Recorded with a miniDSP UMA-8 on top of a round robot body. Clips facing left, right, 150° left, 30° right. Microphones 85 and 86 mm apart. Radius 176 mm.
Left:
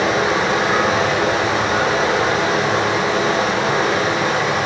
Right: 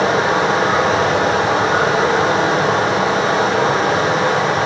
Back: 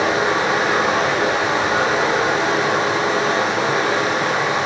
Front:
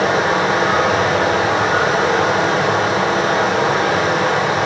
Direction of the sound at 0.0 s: 55° right.